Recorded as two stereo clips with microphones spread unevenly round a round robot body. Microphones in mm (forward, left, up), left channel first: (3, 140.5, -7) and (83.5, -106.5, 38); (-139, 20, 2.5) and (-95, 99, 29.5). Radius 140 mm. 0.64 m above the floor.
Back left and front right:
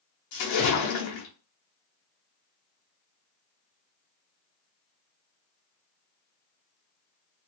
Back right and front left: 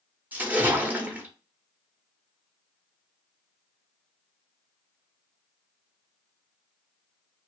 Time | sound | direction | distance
0.3 | a splash | 135° left | 0.9 m